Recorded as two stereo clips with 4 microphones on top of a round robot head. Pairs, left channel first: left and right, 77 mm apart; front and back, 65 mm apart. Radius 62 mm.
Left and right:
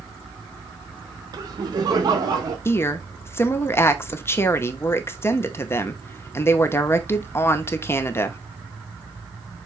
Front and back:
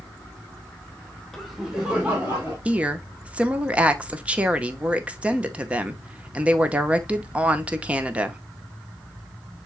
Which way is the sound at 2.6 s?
120° left.